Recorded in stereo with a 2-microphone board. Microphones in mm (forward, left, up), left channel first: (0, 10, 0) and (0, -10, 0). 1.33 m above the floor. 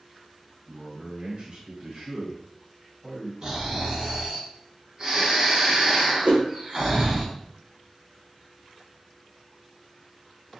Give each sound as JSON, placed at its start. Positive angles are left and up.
{"t": 0.7, "sound": "a man speaking", "side_deg": -50, "distance_m": 1.2}
{"t": 3.4, "sound": "snoring", "side_deg": -35, "distance_m": 1.2}
{"t": 6.2, "sound": "a whoosh", "side_deg": -85, "distance_m": 0.6}